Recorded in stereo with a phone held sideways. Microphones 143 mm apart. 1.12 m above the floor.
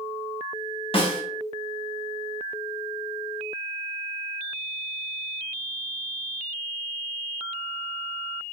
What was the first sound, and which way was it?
A snare drum, 40° left (ahead or behind).